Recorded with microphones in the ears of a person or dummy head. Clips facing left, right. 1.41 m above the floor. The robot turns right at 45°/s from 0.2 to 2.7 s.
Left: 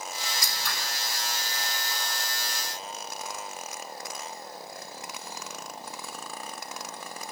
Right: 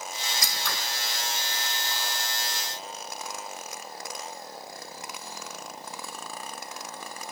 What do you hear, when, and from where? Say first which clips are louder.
0.4 s scissors: right 2 dB; 60° right (ahead or behind), 1.2 m; by 0.8 s 75° right (ahead or behind), 1.2 m